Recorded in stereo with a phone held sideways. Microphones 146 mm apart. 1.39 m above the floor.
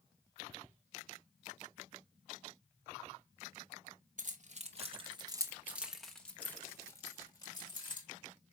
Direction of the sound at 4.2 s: 60° right (ahead or behind).